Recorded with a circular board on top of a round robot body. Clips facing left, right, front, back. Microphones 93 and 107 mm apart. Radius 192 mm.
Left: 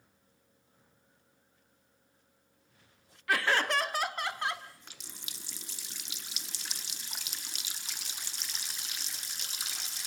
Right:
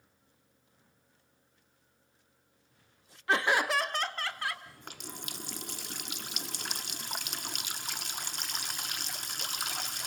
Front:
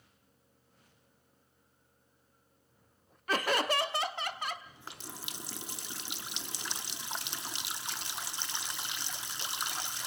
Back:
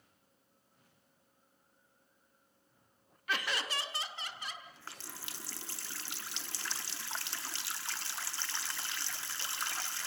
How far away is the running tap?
About 1.0 m.